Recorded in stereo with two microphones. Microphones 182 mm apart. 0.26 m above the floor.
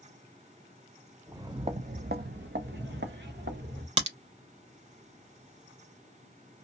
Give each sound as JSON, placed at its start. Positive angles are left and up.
{"t": 1.3, "sound": "footsteps", "side_deg": -15, "distance_m": 0.6}
{"t": 4.0, "sound": "a crack", "side_deg": -35, "distance_m": 0.8}